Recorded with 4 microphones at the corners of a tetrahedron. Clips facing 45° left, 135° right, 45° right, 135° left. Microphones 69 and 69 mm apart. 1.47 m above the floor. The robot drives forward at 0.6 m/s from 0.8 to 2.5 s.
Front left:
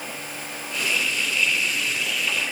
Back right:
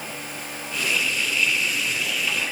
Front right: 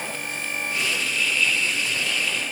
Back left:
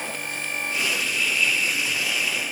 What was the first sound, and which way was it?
Only background noise.